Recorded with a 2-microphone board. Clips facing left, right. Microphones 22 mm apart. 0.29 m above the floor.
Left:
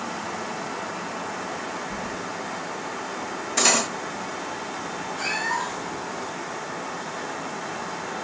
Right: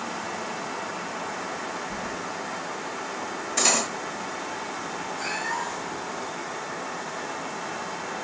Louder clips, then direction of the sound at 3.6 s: Left 3 dB; 15° left (ahead or behind).